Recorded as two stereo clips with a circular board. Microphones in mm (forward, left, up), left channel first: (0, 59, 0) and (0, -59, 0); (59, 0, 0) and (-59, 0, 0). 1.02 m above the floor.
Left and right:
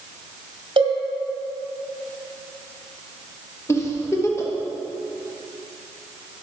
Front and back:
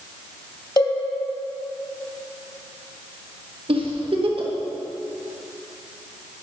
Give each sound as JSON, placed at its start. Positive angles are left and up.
{"t": 0.8, "sound": "a cowbell", "azimuth_deg": -55, "distance_m": 1.8}
{"t": 3.7, "sound": "a giggle", "azimuth_deg": 150, "distance_m": 1.3}